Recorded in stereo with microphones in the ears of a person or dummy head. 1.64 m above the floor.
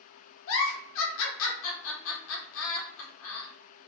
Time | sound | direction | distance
0.5 | a giggle | 80° left | 0.7 m